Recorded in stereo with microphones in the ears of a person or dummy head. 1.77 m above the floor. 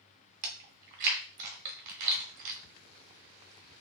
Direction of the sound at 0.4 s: 50° right (ahead or behind).